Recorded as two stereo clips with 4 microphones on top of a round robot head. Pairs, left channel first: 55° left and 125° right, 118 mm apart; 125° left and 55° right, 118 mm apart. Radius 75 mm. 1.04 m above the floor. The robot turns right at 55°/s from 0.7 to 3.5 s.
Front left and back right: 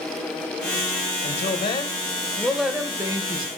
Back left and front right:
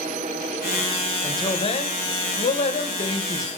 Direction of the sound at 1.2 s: 70° left.